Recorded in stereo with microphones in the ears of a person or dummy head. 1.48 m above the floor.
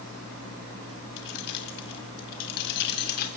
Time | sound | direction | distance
1.2 | keys jangling | 60° left (ahead or behind) | 1.2 m